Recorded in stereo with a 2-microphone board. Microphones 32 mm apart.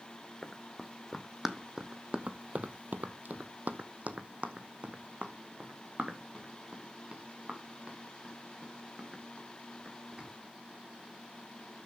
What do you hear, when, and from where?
0.4 s running footsteps: centre (ahead or behind), 1.3 m; by 10.3 s 25° right (ahead or behind), 4 m